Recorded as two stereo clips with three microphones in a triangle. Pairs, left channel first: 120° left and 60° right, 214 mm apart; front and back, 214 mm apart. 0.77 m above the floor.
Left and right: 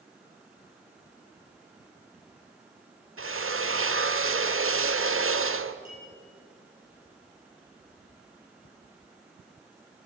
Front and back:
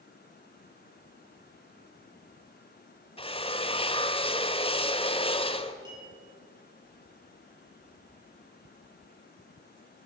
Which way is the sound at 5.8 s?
110° left.